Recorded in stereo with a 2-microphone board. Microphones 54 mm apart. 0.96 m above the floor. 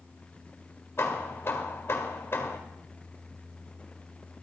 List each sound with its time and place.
1.0 s hammering: 50° left (ahead or behind), 1.5 m